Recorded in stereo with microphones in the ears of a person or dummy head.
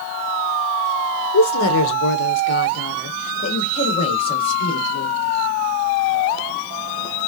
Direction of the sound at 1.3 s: 85° left.